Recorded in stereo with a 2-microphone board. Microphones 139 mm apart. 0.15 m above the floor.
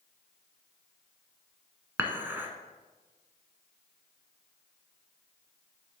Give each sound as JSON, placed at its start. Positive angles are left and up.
{"t": 2.0, "sound": "dishes clattering", "side_deg": -15, "distance_m": 0.9}